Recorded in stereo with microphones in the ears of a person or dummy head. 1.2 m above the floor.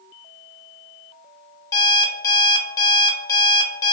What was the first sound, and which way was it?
An alarm clock, 20° left (ahead or behind).